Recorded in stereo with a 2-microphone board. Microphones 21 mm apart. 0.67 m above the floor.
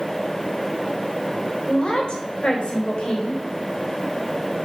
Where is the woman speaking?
45° left (ahead or behind), 3 m.